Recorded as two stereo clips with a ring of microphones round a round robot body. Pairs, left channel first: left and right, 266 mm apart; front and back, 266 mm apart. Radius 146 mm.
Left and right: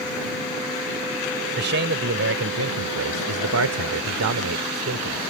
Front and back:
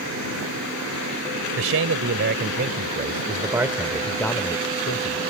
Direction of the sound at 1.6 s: 140° right.